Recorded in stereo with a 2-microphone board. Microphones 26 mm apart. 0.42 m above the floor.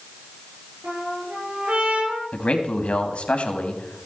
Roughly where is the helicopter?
I don't hear a helicopter.